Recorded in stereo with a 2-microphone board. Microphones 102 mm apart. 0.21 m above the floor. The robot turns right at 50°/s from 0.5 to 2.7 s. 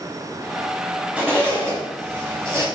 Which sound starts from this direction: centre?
A zipper, at 1.2 s.